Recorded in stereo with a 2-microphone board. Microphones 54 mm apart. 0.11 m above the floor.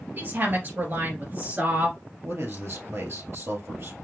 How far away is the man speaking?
About 2 m.